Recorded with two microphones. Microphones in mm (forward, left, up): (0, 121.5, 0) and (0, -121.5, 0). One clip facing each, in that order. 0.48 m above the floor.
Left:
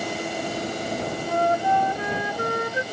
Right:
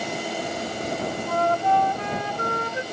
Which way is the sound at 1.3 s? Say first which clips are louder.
Even; 15° left (ahead or behind).